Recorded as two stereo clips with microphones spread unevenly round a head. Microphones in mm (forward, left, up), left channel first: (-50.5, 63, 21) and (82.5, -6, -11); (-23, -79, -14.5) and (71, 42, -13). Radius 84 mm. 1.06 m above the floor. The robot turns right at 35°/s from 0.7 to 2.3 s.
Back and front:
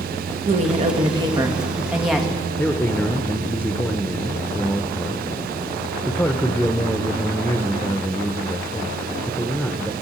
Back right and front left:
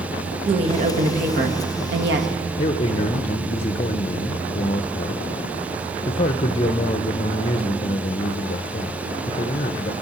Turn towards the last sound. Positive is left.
turn(degrees=-115)